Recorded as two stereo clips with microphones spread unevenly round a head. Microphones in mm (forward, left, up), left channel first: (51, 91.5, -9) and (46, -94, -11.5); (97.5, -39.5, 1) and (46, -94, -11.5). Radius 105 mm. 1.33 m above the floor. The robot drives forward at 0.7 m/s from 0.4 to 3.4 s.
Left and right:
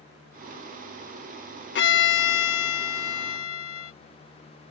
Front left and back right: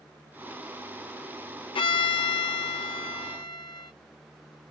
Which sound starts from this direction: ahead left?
A violin, at 1.8 s.